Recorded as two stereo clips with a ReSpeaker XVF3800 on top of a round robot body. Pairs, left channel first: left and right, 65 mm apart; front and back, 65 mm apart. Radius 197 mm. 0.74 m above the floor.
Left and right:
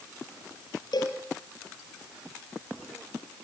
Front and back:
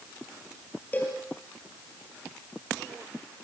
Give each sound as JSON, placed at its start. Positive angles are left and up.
{"t": 0.9, "sound": "a cowbell", "azimuth_deg": 70, "distance_m": 4.0}